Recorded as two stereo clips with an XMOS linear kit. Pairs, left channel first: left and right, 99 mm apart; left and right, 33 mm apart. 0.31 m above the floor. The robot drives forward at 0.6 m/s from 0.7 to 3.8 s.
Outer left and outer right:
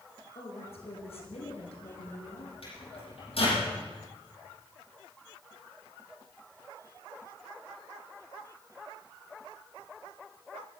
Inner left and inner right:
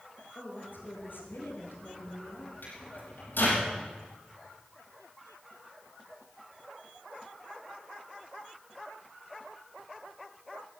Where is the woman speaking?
75° left (ahead or behind), 4.5 m; by 2.5 s 80° left, 4.5 m.